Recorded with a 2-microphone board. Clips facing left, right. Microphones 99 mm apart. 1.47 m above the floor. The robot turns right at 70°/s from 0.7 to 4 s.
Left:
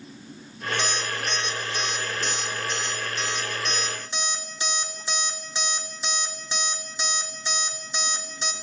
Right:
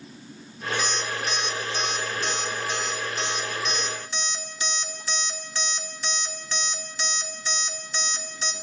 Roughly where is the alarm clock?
Left.